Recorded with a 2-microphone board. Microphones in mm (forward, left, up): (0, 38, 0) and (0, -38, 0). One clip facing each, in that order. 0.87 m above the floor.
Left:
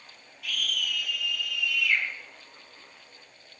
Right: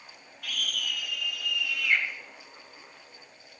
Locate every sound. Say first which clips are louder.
0.4 s a scream: left 2 dB; 55° right (ahead or behind), 7.5 m; by 2.0 s 50° right (ahead or behind), 5.5 m